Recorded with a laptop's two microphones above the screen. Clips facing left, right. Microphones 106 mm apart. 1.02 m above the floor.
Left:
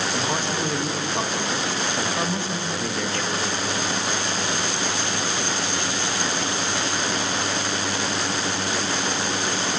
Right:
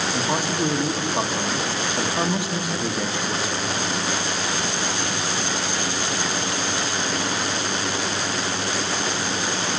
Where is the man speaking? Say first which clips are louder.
Right 2 dB; 10° right (ahead or behind), 1.0 m.